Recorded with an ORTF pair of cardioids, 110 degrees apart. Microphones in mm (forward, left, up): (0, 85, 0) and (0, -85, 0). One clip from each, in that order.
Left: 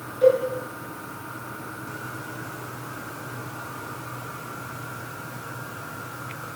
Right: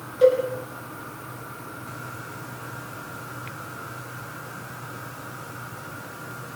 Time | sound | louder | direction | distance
0.2 | a cowbell | even | 55° right | 5 m